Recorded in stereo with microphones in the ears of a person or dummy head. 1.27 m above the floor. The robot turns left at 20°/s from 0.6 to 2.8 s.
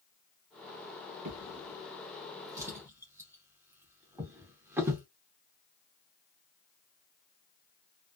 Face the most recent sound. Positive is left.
turn(degrees=-10)  # may be behind; listen again after turning